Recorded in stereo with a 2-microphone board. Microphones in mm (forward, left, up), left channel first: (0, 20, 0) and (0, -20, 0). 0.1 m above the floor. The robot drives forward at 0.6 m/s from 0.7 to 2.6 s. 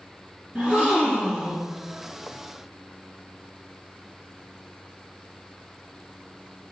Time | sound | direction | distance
0.6 | a gasp | 20° right (ahead or behind) | 1.9 m